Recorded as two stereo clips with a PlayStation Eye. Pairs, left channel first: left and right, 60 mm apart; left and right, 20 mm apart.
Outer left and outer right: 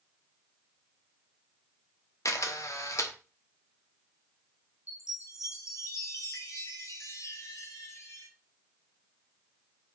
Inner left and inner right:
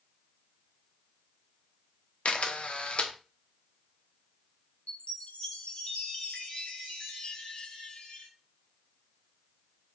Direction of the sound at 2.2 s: 60° left (ahead or behind).